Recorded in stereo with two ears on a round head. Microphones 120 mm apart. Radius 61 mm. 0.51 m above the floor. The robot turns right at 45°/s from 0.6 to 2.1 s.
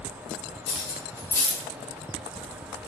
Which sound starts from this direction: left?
Cutlery clinking, at 0.7 s.